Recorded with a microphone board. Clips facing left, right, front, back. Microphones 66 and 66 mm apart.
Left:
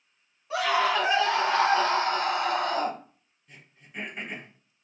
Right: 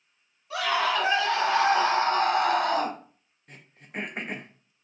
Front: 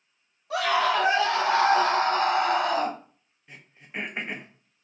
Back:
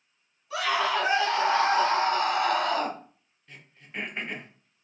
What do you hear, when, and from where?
0.5 s a scream: 25° left, 2 m; by 3.0 s 85° right, 1.5 m
3.5 s throat clearing: 70° right, 0.6 m